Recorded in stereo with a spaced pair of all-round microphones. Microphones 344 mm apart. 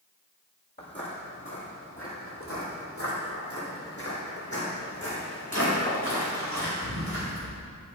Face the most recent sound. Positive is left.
turn(degrees=45)  # may be behind; listen again after turning